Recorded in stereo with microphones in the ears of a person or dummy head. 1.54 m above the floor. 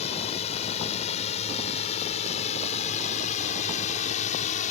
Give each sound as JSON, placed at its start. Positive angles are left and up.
{"t": 0.0, "sound": "a drone", "side_deg": 40}